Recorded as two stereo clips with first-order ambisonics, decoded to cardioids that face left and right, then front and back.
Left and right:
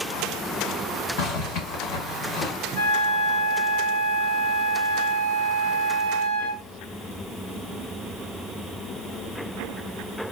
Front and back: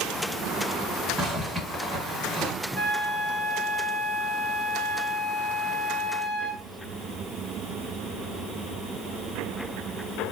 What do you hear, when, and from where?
1.2 s a zipper: 105° left, 1.6 m
2.8 s a flute: 95° left, 1.1 m